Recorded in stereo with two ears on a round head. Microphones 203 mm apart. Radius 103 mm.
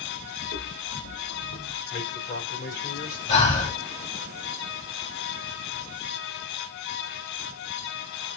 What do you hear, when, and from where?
0.4 s footsteps: 45° left (ahead or behind), 3 m; by 1.8 s 60° left (ahead or behind), 2.5 m
1.9 s a man speaking: 40° left (ahead or behind), 3 m
3.3 s breathing: 35° left (ahead or behind), 3 m